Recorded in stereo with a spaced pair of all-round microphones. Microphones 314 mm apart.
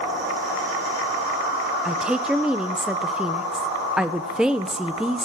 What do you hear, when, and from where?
1.9 s a woman speaking: 5° right (ahead or behind), 0.6 m